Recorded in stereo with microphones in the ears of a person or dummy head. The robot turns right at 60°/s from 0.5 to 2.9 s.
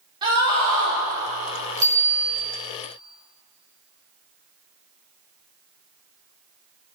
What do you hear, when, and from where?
0.2 s a scream: 155° right, 5 m; by 1.0 s 125° right, 5 m
1.8 s a bicycle bell: 165° right, 2.5 m; by 2.4 s 130° right, 2.5 m